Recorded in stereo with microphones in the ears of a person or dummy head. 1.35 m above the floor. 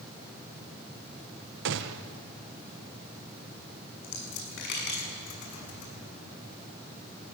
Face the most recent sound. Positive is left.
turn(degrees=60)  # may be behind; listen again after turning